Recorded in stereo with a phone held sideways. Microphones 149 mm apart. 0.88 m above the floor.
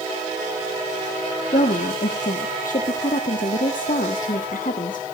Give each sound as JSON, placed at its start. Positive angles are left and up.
{"t": 1.5, "sound": "a woman speaking", "side_deg": 65, "distance_m": 1.5}